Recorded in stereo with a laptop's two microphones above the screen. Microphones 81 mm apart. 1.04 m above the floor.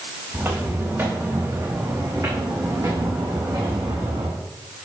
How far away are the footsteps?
About 5 m.